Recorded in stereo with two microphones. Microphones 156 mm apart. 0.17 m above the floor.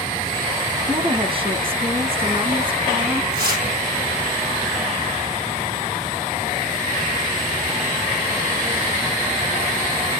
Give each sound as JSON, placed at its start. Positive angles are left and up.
{"t": 0.9, "sound": "a woman speaking", "side_deg": -30, "distance_m": 1.3}
{"t": 3.3, "sound": "tearing paper", "side_deg": -80, "distance_m": 4.0}